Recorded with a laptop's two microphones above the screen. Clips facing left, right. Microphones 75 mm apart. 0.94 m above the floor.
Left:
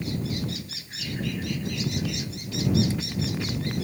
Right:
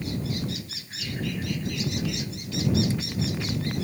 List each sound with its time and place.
Only background noise.